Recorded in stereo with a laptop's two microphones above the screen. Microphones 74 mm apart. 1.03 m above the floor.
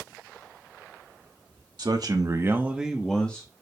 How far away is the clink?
No clink in this recording.